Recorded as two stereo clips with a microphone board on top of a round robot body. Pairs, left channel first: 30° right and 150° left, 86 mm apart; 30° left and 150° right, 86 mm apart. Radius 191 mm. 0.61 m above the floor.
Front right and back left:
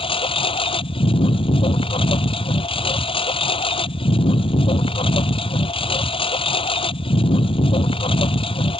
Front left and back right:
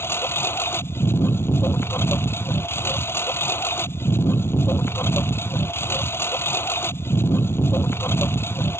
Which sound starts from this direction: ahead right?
A lawn mower, at 0.0 s.